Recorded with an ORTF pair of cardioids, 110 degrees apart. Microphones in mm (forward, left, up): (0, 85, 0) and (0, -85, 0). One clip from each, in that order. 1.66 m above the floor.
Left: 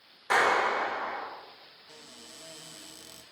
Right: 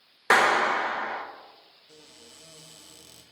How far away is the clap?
About 1.0 m.